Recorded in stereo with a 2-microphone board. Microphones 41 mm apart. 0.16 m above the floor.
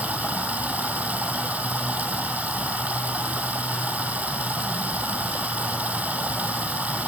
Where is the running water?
40° right (ahead or behind), 1.9 m.